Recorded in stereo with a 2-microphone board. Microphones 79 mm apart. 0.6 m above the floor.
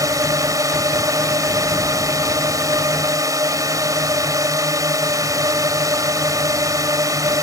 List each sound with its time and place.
0.0 s a drone: 50° right (ahead or behind)